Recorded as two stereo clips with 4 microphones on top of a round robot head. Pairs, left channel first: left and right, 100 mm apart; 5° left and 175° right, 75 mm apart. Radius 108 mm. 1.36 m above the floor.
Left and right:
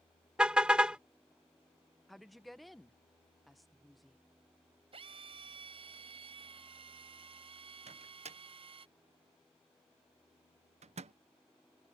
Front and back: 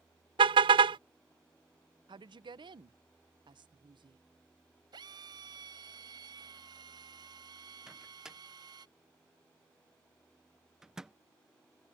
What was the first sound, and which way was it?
A car horn, 170° right.